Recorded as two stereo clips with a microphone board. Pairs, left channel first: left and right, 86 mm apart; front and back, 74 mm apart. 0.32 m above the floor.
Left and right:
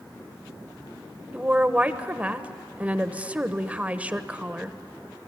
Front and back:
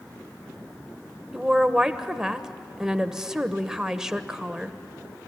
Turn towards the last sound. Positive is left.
turn(degrees=-115)